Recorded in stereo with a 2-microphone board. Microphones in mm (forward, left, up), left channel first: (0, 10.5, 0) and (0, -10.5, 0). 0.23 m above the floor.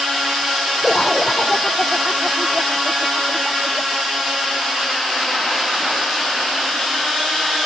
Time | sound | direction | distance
0.8 | laughter | 35° left (ahead or behind) | ?